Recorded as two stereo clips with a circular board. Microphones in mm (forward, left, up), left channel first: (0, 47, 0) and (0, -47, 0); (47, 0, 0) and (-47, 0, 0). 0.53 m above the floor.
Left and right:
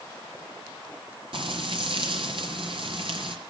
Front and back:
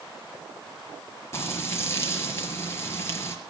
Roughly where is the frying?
Ahead right.